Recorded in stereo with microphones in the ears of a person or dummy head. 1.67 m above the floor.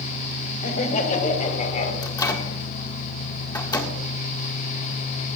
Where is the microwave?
20° left (ahead or behind), 1.7 m.